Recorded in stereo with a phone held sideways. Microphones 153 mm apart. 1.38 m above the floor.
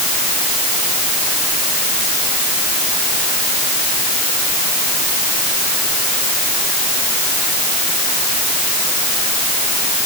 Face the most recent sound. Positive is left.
No sound to turn to.